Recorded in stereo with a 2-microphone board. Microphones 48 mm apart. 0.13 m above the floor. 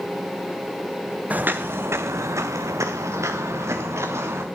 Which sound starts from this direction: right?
Footsteps, at 1.3 s.